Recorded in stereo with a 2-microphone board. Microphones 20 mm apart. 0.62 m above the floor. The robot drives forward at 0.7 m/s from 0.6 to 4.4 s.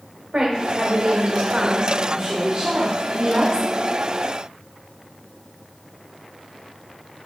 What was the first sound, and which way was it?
A woman speaking, 40° right (ahead or behind).